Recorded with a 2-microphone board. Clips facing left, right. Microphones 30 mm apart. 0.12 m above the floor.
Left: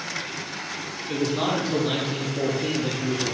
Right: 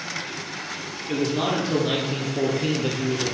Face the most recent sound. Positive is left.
turn(degrees=-60)  # may be behind; listen again after turning